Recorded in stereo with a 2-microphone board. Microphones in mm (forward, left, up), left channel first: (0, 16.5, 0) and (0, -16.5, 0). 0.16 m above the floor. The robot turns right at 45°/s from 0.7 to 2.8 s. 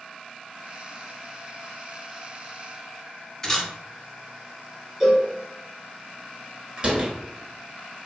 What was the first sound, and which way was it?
A camera shutter, 15° left (ahead or behind).